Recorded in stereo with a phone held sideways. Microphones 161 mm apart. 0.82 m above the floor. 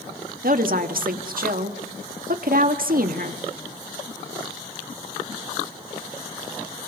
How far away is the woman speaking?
About 1.6 m.